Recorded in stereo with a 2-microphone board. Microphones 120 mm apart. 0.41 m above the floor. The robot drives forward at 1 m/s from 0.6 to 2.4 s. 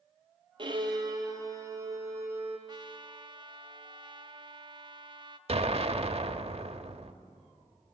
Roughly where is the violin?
Right.